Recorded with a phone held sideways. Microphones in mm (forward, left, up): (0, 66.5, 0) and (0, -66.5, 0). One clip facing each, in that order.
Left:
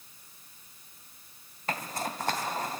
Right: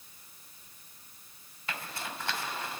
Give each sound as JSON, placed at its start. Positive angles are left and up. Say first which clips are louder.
{"t": 1.7, "sound": "a zipper", "louder": "left 6 dB", "side_deg": 45, "distance_m": 2.5}